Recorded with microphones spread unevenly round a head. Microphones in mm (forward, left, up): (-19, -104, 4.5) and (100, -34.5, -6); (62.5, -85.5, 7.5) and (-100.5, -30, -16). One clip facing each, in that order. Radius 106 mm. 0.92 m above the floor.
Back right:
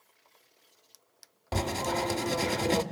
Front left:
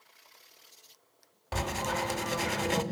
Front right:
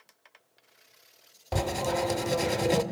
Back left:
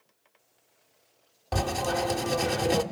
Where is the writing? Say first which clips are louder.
Back right 2 dB, even; 100° right, 1.1 m.